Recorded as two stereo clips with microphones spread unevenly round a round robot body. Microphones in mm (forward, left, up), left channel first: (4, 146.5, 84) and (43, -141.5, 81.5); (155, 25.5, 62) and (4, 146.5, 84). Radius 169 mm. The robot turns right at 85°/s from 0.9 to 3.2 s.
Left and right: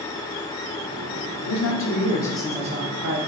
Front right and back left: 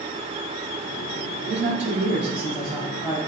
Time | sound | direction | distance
1.4 | a man speaking | 110° left | 3 m